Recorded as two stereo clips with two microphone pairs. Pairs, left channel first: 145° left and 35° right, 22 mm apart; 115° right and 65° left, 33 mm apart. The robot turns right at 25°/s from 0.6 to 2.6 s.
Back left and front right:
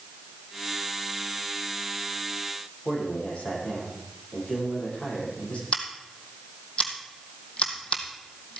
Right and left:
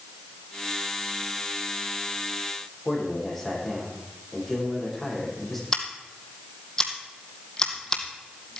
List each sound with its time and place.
2.9 s a man speaking: 160° left, 8 m
5.7 s scissors: straight behind, 1.9 m